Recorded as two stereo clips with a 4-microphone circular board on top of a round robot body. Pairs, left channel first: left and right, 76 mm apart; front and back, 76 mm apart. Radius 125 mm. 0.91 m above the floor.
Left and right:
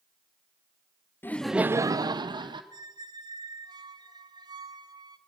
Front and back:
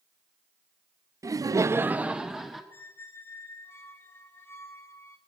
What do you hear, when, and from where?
1.2 s laughter: 140° left, 0.6 m; by 2.6 s 95° right, 1.4 m
2.7 s a squeak: 65° right, 1.0 m